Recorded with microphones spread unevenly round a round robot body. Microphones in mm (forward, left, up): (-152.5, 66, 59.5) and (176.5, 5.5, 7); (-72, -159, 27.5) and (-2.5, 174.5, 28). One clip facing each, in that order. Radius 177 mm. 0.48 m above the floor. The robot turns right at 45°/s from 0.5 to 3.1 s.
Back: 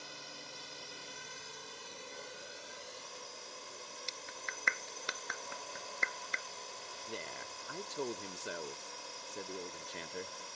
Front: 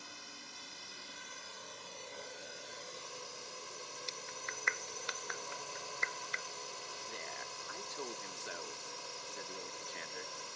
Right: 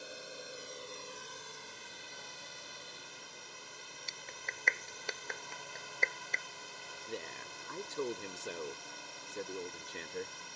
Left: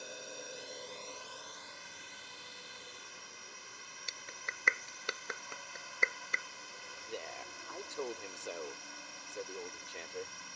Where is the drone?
170° left; by 10.6 s 70° right.